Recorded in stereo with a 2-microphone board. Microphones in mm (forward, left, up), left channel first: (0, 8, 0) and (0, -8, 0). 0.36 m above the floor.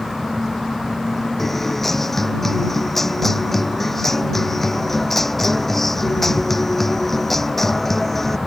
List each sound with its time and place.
1.4 s a guitar: 10° left (ahead or behind)